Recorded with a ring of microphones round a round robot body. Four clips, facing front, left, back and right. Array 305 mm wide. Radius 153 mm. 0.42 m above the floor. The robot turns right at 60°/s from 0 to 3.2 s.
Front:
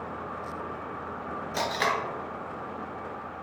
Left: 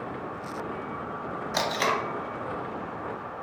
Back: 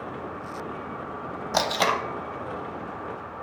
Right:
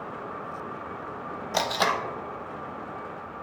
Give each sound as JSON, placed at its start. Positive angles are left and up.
{"t": 1.5, "sound": "tape being pulled", "azimuth_deg": -160, "distance_m": 0.6}